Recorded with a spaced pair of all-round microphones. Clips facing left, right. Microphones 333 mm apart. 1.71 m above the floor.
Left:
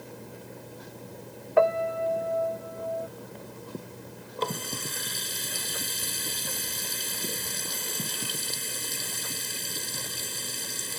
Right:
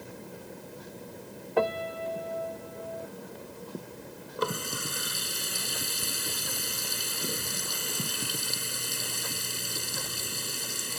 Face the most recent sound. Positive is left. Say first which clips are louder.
# right 1 dB
turn(degrees=-15)  # may be behind; listen again after turning